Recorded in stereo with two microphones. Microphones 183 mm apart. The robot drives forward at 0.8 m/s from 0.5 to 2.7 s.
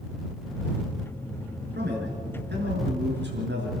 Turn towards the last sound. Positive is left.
turn(degrees=-75)  # may be behind; listen again after turning